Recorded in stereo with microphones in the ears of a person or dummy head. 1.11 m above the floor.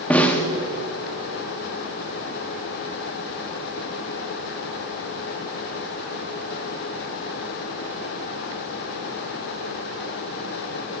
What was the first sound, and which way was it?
A snare drum, 15° left (ahead or behind).